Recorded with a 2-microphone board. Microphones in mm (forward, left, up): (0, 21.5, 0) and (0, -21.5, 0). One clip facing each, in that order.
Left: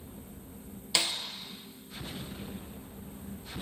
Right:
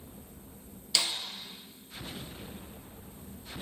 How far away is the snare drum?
About 1.1 m.